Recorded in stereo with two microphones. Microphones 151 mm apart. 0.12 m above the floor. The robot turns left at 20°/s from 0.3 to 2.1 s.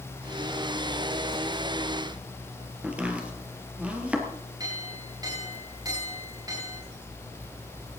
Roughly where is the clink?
Right.